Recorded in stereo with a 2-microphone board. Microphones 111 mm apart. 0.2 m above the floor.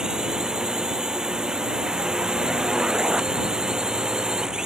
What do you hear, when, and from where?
0.0 s a drone: 5° right (ahead or behind)